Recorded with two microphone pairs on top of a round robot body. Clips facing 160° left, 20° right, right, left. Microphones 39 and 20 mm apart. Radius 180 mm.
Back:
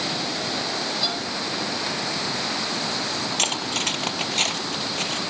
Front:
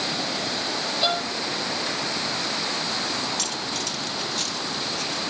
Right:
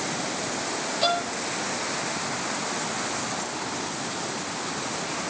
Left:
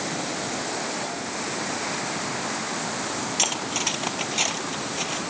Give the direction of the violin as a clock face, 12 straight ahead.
2 o'clock.